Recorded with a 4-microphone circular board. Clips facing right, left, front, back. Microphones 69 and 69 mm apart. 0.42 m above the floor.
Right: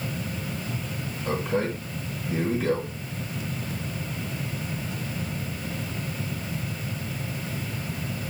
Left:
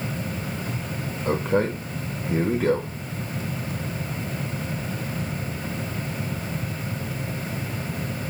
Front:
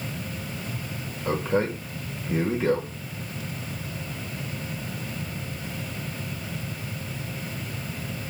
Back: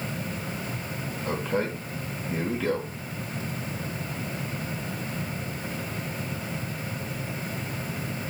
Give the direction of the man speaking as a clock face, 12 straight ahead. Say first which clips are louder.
Left 4 dB, front 4 dB; 10 o'clock.